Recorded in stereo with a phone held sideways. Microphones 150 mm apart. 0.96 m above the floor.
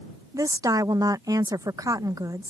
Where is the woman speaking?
25° right (ahead or behind).